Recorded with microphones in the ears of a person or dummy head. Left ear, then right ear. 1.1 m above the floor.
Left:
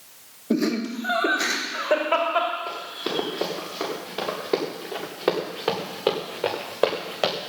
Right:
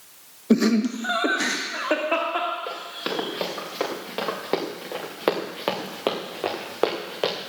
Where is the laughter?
55° right (ahead or behind), 1.0 m; by 3.2 s 25° right (ahead or behind), 2.5 m.